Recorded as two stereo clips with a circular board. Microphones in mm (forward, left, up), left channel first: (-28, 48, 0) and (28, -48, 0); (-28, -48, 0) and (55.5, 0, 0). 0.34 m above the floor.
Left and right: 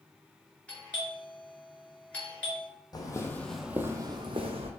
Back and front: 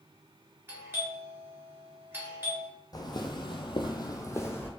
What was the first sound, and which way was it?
A doorbell, 55° left.